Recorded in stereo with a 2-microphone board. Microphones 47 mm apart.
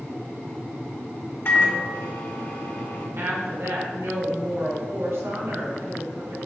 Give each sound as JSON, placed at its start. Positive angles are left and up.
{"t": 1.4, "sound": "a microwave", "side_deg": 50, "distance_m": 1.8}
{"t": 3.2, "sound": "a woman speaking", "side_deg": -60, "distance_m": 2.0}